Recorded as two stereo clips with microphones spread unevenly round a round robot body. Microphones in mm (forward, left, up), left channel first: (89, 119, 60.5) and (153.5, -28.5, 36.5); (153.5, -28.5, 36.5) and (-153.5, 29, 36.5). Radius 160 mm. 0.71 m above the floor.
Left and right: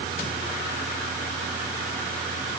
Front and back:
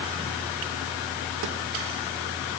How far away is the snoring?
I don't hear snoring.